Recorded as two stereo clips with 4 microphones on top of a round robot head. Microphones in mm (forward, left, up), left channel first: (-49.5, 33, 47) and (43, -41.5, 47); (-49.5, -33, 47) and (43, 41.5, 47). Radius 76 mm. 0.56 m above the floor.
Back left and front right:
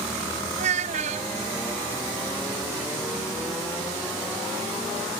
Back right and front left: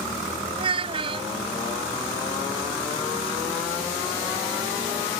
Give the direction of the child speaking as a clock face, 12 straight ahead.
12 o'clock.